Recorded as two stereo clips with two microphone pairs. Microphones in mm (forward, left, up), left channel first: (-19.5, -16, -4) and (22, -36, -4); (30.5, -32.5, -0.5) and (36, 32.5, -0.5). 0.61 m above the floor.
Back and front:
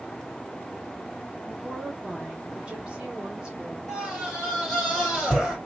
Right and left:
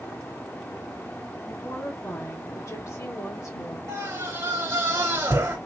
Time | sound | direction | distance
1.5 | a woman speaking | 85° right | 1.3 m
3.9 | a scream | 70° left | 2 m